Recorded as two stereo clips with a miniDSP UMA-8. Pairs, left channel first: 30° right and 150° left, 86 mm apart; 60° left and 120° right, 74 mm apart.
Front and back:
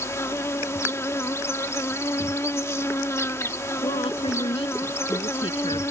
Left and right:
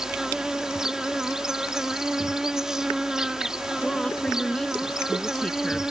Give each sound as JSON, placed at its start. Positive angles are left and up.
{"t": 0.0, "sound": "an insect", "azimuth_deg": -45}
{"t": 3.8, "sound": "a woman speaking", "azimuth_deg": -20}